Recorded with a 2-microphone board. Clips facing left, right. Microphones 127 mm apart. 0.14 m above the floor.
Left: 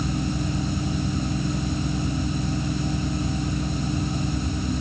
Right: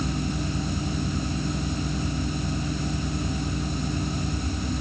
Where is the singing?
No singing in this recording.